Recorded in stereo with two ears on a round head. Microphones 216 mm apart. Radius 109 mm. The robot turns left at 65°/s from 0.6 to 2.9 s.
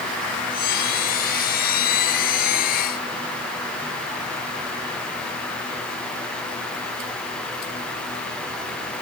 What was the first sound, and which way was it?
Only background noise.